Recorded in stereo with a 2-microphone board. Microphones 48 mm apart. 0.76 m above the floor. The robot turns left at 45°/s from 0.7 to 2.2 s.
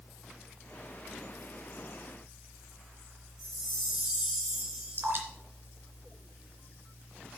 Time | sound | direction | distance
3.4 | a chime | 10° right (ahead or behind) | 3 m
4.9 | dripping | 45° right (ahead or behind) | 2.5 m